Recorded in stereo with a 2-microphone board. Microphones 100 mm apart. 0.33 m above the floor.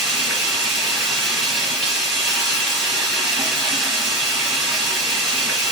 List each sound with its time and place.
0.0 s running water: centre (ahead or behind), 1.5 m